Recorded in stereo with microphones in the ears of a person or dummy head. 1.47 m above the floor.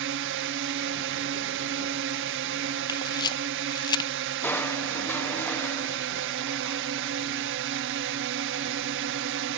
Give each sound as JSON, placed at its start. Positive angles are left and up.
{"t": 0.0, "sound": "a drone", "side_deg": -65}
{"t": 2.9, "sound": "a camera shutter", "side_deg": 25}
{"t": 4.4, "sound": "crushing", "side_deg": 10}